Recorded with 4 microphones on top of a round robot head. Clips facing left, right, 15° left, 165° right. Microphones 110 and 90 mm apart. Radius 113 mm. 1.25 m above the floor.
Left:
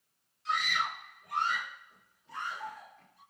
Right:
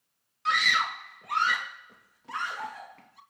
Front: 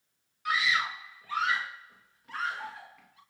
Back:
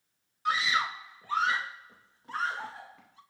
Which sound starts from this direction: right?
A scream, at 0.5 s.